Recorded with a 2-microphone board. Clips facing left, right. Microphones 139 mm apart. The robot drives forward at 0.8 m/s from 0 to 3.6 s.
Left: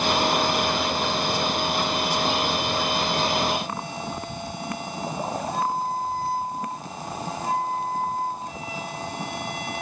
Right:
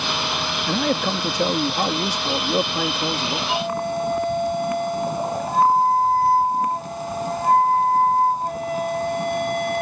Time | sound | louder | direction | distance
0.7 | a man speaking | right 3 dB | 80° right | ?
3.5 | a flute | right 6 dB | 60° right (ahead or behind) | ?